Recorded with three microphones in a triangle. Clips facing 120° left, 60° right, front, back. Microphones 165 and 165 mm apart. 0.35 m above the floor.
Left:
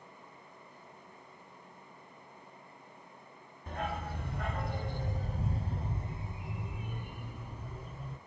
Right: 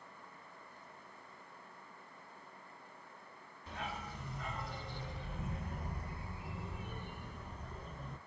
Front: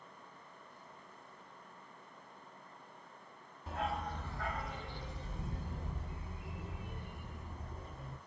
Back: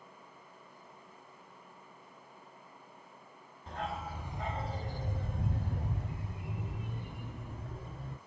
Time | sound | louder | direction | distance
3.7 | a dog barking | left 7 dB, front 1 dB | 85° left | 0.9 m